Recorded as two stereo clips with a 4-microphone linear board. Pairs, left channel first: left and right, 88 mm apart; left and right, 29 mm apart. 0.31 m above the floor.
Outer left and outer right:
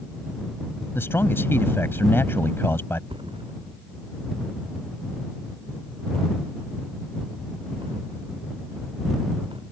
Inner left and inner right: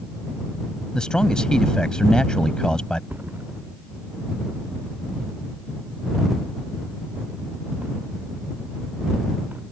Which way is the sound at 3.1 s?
85° right.